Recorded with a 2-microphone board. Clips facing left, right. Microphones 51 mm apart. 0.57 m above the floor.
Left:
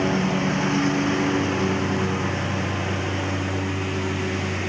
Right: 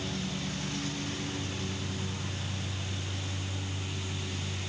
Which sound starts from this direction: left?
A lawn mower, at 0.0 s.